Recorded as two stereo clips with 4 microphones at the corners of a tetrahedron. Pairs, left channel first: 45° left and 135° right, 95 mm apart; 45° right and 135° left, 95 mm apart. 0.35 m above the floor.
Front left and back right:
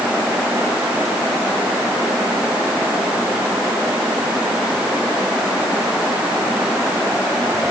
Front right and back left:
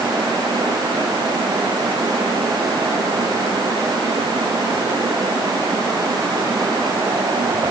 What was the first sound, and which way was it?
Only background noise.